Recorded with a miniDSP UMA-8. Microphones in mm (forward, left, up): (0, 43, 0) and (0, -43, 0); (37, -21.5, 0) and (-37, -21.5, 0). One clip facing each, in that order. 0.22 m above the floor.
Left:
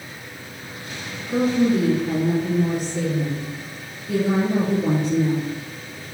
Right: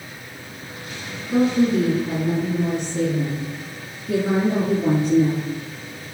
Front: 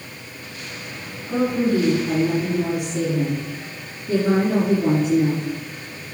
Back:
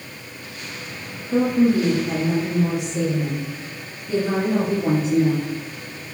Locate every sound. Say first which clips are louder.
1.3 s a woman speaking: right 1 dB, back 2 dB; 10° right, 1.9 m; by 5.5 s 45° right, 3.5 m